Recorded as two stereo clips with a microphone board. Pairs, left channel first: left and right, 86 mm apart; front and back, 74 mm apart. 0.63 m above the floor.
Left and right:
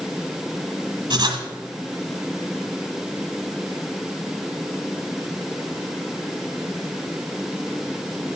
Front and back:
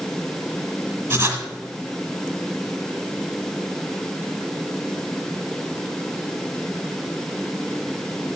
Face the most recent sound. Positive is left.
turn(degrees=-115)